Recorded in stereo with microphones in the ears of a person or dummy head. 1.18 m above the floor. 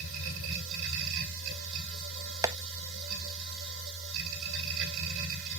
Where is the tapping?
15° right (ahead or behind), 0.8 m.